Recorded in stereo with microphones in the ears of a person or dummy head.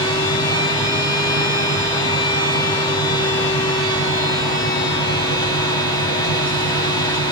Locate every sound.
0.0 s a fan: 25° left (ahead or behind), 0.8 m